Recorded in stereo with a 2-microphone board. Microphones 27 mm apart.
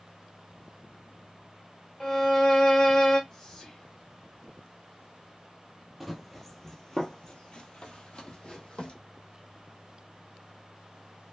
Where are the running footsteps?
Centre (ahead or behind), 0.9 m; by 8.9 s 40° left (ahead or behind), 1.3 m.